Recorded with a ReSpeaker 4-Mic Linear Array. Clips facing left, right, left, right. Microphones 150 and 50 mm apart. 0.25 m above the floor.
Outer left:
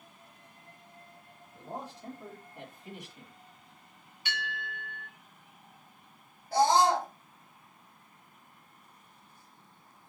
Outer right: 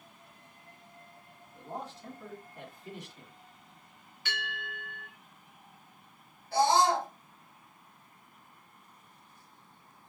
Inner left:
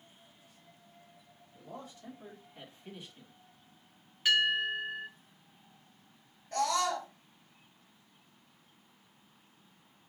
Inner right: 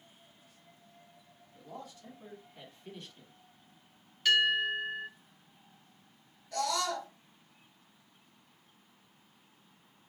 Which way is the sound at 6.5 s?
40° left (ahead or behind).